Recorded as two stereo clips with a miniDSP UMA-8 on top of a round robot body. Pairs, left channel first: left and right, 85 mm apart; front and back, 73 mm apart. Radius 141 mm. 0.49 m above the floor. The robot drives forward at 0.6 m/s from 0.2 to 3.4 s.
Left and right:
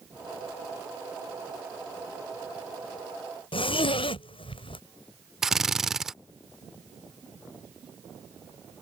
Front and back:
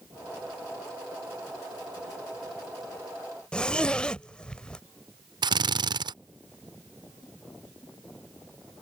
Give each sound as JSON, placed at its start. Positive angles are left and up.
{"t": 3.5, "sound": "a zipper", "azimuth_deg": 80}
{"t": 5.4, "sound": "a drill", "azimuth_deg": -175}